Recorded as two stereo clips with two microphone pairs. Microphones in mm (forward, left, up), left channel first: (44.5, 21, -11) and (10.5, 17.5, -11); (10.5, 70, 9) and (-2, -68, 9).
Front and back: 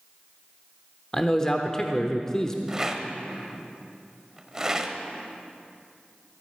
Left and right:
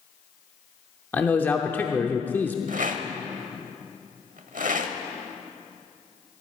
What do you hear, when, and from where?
1.1 s a man speaking: 35° left, 0.8 m
2.7 s a rattle: 100° right, 0.9 m